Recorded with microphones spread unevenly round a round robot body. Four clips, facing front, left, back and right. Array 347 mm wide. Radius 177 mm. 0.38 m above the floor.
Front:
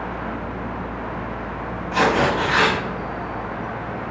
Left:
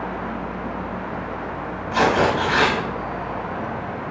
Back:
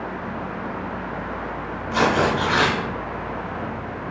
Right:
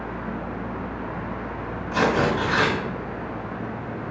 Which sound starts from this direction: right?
Tearing paper, at 1.9 s.